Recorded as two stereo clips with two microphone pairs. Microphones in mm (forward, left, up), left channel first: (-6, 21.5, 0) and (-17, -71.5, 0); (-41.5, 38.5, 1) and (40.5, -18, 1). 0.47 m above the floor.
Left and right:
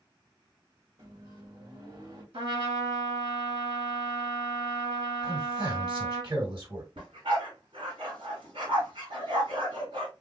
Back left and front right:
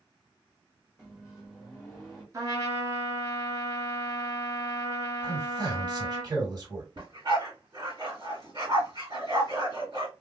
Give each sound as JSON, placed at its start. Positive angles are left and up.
{"t": 1.0, "sound": "a microwave", "azimuth_deg": -115, "distance_m": 1.5}
{"t": 2.3, "sound": "a trumpet", "azimuth_deg": -90, "distance_m": 1.7}
{"t": 5.2, "sound": "a man speaking", "azimuth_deg": -70, "distance_m": 2.5}
{"t": 7.0, "sound": "a dog barking", "azimuth_deg": -80, "distance_m": 1.8}